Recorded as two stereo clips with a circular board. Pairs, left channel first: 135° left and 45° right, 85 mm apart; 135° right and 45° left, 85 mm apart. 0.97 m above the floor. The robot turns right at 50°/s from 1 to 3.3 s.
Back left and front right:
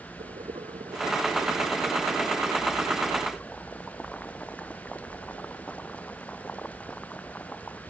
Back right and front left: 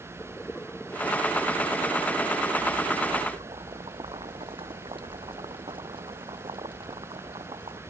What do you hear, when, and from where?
0.2 s boiling: 55° right; by 7.8 s 60° left